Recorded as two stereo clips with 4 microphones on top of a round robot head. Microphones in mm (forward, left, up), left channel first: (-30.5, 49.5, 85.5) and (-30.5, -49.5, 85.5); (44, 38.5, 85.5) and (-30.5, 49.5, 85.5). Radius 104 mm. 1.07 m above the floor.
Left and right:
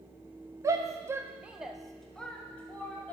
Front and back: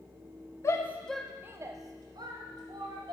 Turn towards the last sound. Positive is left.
turn(degrees=165)